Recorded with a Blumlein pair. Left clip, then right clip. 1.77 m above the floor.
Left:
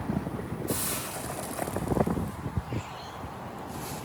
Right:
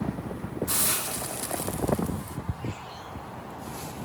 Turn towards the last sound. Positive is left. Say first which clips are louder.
# right 4 dB
turn(degrees=-60)